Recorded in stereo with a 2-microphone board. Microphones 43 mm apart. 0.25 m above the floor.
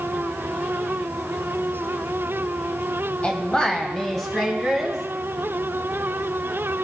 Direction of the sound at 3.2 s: 30° left (ahead or behind).